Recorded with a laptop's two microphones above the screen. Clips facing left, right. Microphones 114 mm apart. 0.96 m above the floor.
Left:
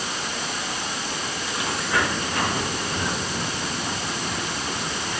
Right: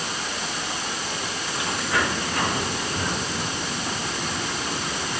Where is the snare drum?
I don't hear a snare drum.